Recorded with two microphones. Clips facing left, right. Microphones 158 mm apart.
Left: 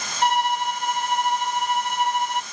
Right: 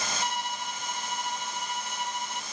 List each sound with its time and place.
0.2 s a violin: 80° left